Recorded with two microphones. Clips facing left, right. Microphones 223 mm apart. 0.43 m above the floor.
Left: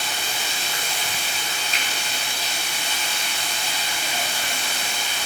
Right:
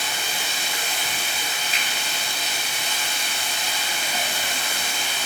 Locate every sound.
0.0 s running water: 20° right (ahead or behind), 0.9 m
1.7 s a finger snap: 5° right (ahead or behind), 0.8 m